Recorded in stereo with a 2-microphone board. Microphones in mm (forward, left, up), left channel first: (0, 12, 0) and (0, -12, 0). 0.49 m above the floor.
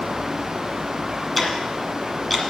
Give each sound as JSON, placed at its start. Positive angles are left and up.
{"t": 1.4, "sound": "ticking", "side_deg": 5, "distance_m": 1.6}